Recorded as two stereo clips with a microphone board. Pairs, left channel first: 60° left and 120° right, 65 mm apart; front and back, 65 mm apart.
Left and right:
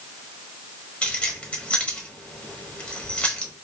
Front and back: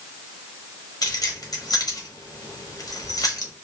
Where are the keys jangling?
10° right, 1.0 m.